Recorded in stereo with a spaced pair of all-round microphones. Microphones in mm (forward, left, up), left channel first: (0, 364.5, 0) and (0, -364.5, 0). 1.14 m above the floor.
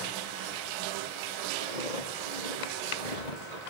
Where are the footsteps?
70° left (ahead or behind), 3.5 m; by 3.6 s 60° left (ahead or behind), 2 m.